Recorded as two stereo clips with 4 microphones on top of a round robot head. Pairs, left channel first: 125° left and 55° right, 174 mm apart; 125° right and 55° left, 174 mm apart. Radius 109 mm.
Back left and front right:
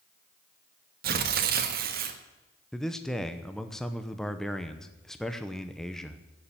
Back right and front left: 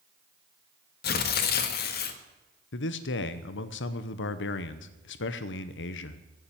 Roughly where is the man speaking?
Behind right.